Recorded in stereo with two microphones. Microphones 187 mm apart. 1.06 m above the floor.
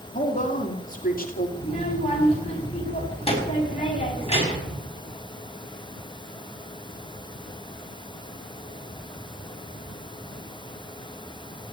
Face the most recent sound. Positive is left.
turn(degrees=30)  # may be behind; listen again after turning